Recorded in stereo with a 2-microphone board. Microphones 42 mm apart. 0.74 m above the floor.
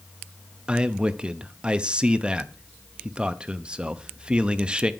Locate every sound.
0.7 s a man speaking: 25° right (ahead or behind), 0.6 m